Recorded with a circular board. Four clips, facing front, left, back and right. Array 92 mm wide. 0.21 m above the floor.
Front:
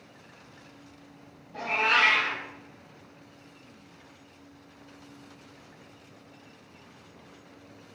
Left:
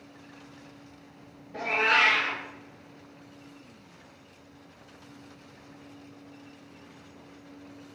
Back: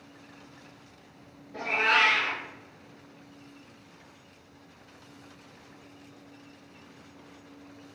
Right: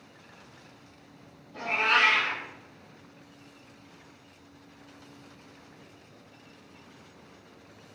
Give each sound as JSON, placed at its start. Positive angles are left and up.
{"t": 1.5, "sound": "a cat meowing", "azimuth_deg": 110, "distance_m": 1.3}